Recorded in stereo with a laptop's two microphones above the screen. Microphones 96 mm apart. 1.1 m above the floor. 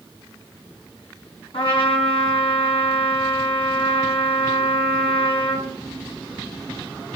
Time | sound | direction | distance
1.5 | a trumpet | 75° left (ahead or behind) | 6 m